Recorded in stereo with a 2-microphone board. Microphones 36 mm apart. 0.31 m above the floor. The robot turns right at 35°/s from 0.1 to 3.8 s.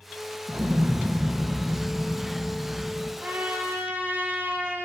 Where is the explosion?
95° right, 1.5 m; by 3.1 s 5° right, 1.5 m.